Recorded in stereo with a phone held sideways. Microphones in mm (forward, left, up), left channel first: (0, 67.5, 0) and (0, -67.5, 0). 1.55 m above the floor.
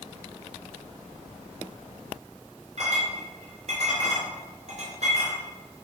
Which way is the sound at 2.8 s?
60° right (ahead or behind).